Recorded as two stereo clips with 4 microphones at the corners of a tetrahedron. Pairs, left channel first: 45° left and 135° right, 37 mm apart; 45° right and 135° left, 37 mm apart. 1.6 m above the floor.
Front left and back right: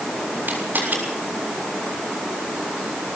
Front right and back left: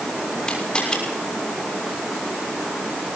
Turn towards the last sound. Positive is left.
turn(degrees=-110)